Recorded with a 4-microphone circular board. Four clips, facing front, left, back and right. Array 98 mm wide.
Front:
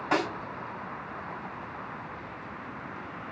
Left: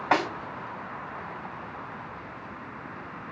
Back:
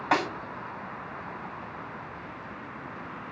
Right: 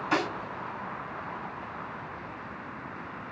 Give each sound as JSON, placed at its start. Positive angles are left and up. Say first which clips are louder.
{"t": 0.1, "sound": "a snare drum", "louder": "left 4 dB, back 2 dB", "azimuth_deg": 105, "distance_m": 3.0}